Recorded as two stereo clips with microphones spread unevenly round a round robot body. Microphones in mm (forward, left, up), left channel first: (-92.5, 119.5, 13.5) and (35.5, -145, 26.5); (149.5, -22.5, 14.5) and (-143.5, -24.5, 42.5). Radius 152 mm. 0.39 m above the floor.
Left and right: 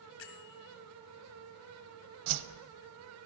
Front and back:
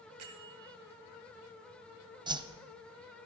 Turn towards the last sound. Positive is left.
turn(degrees=-105)